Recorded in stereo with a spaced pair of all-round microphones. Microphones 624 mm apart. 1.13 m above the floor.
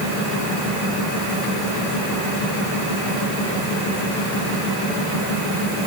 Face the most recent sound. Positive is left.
No sound to turn to.